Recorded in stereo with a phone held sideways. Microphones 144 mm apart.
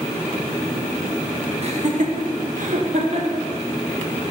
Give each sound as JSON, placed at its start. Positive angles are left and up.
{"t": 1.6, "sound": "laughter", "side_deg": -45, "distance_m": 1.1}